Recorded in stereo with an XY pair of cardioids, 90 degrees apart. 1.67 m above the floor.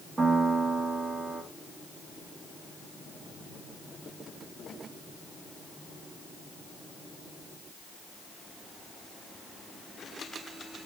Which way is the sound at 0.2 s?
40° right.